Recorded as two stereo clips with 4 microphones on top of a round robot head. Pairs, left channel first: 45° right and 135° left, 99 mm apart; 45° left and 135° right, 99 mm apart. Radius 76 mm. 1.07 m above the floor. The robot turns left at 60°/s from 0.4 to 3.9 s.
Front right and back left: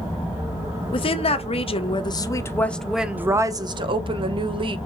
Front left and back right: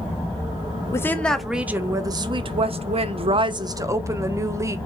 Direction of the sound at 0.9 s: 15° right.